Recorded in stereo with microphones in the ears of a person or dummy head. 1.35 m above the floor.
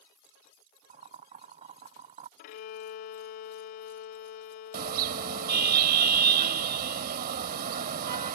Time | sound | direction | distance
0.9 | boiling | 35° right (ahead or behind) | ?
2.4 | a violin | 50° left (ahead or behind) | ?
4.7 | a car horn | 55° right (ahead or behind) | ?